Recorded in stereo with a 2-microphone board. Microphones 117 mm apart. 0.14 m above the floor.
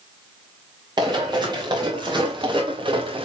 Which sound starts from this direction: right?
Running footsteps, at 1.0 s.